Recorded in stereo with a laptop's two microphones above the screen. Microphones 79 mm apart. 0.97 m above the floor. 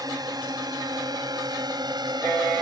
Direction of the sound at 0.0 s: 55° right (ahead or behind).